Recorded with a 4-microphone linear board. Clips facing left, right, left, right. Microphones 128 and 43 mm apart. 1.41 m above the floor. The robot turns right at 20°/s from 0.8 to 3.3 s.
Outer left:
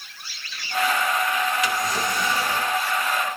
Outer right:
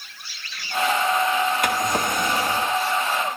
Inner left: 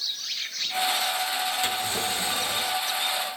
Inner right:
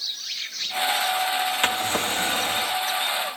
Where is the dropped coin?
No dropped coin in this recording.